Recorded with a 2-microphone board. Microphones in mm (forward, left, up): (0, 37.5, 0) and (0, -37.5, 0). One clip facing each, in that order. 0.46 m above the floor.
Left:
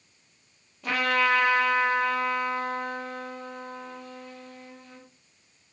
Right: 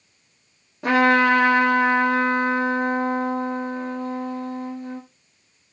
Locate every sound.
0.8 s a trumpet: 85° right, 2 m